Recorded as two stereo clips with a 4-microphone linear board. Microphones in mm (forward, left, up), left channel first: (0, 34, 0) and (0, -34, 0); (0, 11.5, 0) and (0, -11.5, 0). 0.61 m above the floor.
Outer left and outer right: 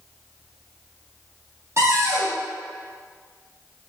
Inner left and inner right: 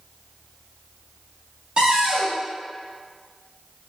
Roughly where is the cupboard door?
Right.